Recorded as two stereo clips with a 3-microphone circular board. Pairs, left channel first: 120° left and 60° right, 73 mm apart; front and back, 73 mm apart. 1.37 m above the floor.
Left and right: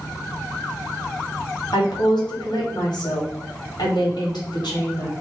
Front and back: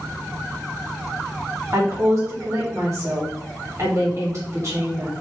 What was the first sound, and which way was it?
A woman speaking, 130° left.